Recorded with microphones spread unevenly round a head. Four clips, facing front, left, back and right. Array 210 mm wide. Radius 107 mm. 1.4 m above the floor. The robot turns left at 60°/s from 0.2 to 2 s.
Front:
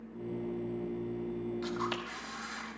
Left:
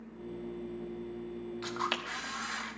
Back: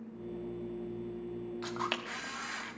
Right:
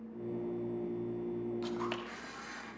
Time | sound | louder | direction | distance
1.6 | a camera shutter | left 1 dB, front 1 dB | 175° left | 1.4 m